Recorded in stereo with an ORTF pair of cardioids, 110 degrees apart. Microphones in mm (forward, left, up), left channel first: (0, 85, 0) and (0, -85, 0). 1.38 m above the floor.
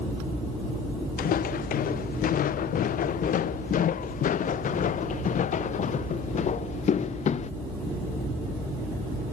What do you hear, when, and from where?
1.2 s footsteps: 60° left; by 7.5 s 45° left